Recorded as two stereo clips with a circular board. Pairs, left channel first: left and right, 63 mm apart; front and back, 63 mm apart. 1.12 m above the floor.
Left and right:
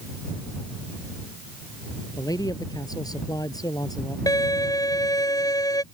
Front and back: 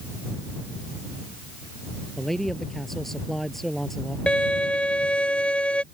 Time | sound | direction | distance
2.2 | a man speaking | 85° left | ?
4.3 | a violin | 75° left | ?